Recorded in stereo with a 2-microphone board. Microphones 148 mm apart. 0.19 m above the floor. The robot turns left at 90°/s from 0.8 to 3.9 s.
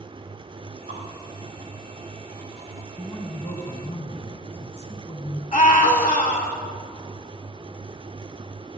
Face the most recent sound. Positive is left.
turn(degrees=55)  # may be behind; listen again after turning